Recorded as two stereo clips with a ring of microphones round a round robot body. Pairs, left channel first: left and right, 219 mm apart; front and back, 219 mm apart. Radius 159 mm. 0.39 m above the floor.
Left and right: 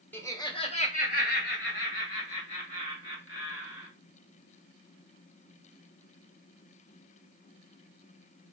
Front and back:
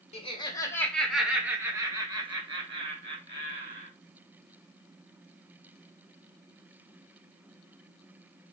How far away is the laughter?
About 0.9 m.